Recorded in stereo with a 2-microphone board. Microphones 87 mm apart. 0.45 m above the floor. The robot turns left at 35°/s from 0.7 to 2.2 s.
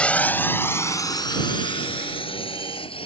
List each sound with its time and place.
0.0 s a drone: 15° left (ahead or behind); by 3.1 s 85° left